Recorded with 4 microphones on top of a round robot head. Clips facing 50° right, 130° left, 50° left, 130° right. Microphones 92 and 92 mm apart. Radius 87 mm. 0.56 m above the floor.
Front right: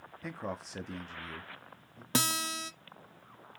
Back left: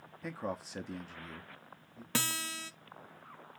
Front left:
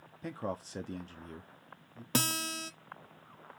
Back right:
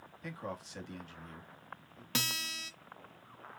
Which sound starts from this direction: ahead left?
A man speaking, at 0.2 s.